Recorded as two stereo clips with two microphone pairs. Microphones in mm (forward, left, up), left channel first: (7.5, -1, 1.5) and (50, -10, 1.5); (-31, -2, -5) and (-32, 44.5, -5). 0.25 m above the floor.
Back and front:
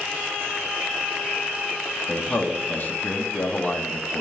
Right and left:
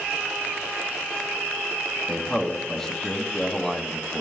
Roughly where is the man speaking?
Behind.